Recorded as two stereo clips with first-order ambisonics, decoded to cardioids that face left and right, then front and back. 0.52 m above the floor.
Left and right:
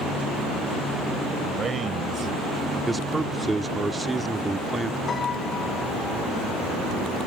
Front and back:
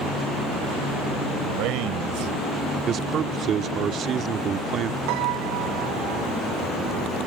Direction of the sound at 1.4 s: 155° right.